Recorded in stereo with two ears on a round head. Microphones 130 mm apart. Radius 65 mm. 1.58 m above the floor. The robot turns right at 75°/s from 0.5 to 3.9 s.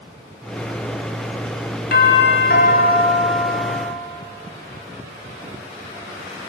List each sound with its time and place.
1.9 s a doorbell: 65° left, 5 m; by 3.9 s 145° right, 5 m